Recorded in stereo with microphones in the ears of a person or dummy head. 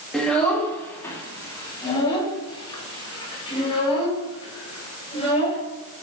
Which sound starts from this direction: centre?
A child speaking, at 0.1 s.